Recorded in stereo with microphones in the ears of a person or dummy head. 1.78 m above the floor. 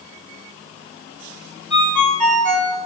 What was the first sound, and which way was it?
A ringtone, 5° left (ahead or behind).